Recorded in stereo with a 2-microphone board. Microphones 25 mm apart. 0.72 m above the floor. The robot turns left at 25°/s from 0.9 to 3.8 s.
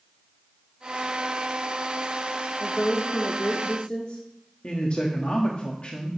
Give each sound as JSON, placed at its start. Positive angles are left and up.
{"t": 2.6, "sound": "a woman speaking", "side_deg": 40, "distance_m": 1.2}
{"t": 4.6, "sound": "a man speaking", "side_deg": 50, "distance_m": 1.3}